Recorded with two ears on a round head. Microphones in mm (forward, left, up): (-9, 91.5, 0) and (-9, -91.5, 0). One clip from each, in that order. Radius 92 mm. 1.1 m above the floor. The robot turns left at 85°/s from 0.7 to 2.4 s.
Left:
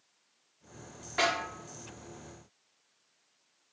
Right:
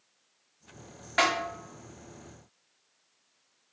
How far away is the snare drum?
About 1.3 m.